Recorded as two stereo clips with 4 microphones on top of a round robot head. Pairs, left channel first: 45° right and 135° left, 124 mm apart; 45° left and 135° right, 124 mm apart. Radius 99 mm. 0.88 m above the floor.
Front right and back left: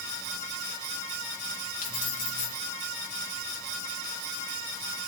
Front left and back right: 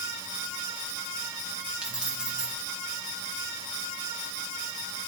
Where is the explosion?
No explosion in this recording.